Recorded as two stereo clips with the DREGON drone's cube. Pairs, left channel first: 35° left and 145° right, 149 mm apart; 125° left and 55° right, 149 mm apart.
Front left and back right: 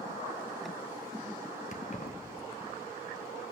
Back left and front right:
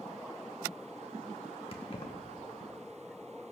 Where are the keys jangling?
70° left, 1.2 m.